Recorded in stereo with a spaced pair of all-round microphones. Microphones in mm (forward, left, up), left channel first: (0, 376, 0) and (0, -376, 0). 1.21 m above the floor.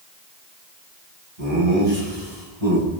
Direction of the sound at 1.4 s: 55° right (ahead or behind).